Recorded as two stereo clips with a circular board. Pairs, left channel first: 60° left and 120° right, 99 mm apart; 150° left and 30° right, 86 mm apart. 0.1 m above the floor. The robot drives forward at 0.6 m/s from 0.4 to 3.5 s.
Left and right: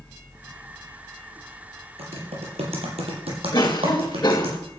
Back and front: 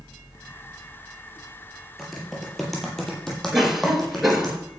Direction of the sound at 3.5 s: 55° left.